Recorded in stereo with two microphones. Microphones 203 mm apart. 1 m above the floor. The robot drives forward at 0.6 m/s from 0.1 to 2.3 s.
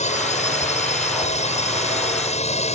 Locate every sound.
0.0 s a drone: 40° left (ahead or behind); by 2.8 s 35° left (ahead or behind)